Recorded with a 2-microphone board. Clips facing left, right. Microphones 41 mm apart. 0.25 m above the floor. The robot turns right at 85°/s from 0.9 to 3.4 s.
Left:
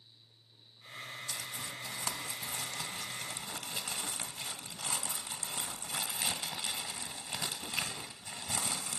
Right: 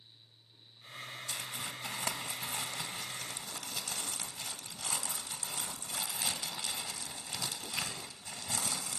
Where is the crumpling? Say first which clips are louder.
Right 3 dB; 140° right, 1.3 m; by 9.0 s 40° left, 1.3 m.